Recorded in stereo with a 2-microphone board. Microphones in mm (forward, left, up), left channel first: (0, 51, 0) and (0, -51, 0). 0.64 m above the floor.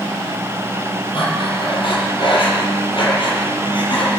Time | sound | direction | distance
1.1 | breathing | 60° left (ahead or behind) | 4 m